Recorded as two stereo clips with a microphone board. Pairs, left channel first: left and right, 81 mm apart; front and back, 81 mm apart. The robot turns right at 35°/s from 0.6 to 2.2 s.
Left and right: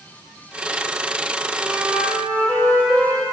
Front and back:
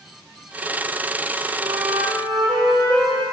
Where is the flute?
155° left, 4 m; by 3.2 s 175° left, 4 m.